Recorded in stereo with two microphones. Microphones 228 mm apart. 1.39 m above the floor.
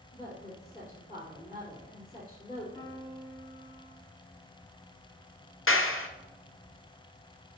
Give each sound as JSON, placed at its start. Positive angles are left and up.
{"t": 0.1, "sound": "a woman speaking", "side_deg": 45, "distance_m": 3.5}
{"t": 2.8, "sound": "a piano", "side_deg": 30, "distance_m": 3.0}
{"t": 5.7, "sound": "a clap", "side_deg": 65, "distance_m": 0.6}